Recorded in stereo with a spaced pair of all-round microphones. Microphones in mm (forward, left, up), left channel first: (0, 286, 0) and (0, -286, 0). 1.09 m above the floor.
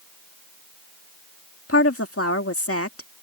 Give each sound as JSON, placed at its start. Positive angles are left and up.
{"t": 1.7, "sound": "a woman speaking", "side_deg": 25}